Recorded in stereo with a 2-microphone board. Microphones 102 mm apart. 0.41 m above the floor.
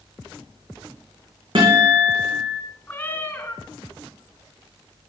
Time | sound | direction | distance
1.6 | a guitar | 55° right (ahead or behind) | 9 m
2.9 | a cat meowing | 20° left (ahead or behind) | 1.9 m